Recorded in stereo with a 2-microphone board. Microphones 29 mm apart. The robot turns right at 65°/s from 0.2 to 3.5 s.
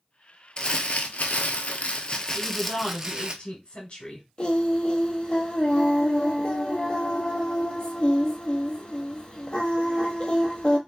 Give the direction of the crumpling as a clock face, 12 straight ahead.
11 o'clock.